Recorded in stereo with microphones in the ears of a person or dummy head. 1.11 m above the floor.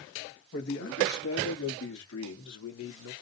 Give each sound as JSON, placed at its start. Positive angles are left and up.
{"t": 0.5, "sound": "a man speaking", "side_deg": 60, "distance_m": 1.5}